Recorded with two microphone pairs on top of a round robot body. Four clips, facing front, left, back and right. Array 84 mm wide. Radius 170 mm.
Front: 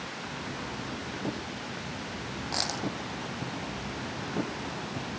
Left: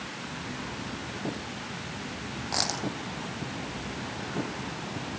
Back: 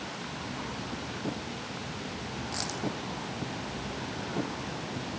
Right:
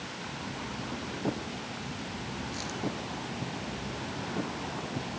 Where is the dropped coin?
70° left.